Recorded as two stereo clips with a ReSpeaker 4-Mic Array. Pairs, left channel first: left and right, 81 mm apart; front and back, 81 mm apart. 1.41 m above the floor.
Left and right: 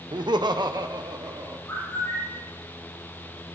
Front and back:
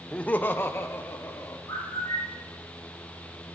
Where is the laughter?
80° right, 0.6 m; by 1.6 s 55° right, 2.0 m.